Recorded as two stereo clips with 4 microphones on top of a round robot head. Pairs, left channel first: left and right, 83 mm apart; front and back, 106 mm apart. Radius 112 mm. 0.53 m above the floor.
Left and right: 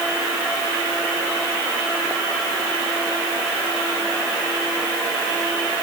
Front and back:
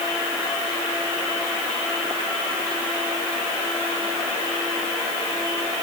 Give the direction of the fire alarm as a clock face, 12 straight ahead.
No fire alarm in this recording.